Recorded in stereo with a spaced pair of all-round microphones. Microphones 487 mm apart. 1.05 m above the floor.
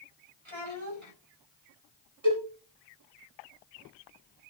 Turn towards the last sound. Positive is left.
turn(degrees=-70)  # may be behind; listen again after turning